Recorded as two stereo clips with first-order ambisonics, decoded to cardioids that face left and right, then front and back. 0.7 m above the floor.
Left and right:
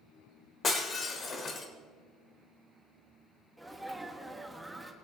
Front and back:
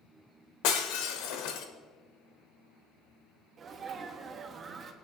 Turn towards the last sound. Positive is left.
turn(degrees=-170)